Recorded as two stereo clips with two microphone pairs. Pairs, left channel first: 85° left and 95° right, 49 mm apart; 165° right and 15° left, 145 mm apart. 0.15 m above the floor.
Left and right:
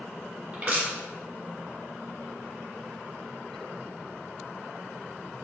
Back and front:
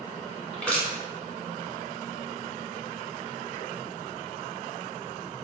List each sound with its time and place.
0.5 s crushing: 90° right, 1.5 m